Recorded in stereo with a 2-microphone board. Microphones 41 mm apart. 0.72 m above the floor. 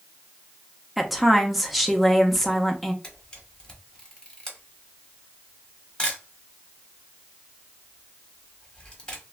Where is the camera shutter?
20° left (ahead or behind), 0.9 m.